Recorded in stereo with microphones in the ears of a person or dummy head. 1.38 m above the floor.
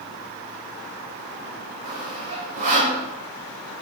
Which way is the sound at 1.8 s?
40° right (ahead or behind).